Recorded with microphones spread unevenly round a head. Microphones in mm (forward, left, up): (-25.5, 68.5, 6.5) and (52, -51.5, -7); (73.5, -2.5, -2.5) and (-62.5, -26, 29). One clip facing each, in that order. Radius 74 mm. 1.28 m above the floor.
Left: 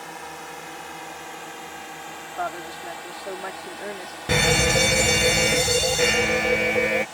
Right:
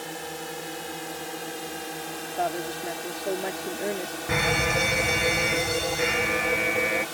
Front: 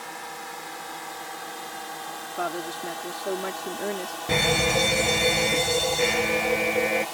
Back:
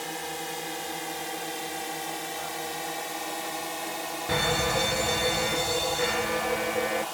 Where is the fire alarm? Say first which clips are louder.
Left 5 dB, front 3 dB; 70° left.